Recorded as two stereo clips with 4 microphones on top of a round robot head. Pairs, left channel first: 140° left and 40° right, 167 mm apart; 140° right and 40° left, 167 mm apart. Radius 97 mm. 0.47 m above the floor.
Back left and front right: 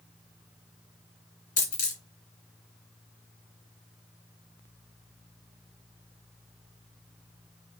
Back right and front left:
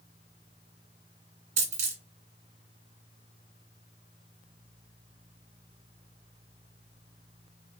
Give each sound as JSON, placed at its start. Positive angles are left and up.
{"t": 1.6, "sound": "a dropped coin", "azimuth_deg": 90, "distance_m": 2.0}